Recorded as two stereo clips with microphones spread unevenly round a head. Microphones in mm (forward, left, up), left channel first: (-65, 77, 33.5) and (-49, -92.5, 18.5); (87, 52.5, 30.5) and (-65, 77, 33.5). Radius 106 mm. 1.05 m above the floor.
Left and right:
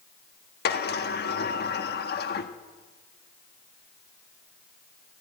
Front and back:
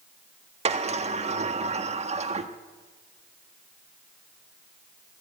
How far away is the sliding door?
About 1.4 m.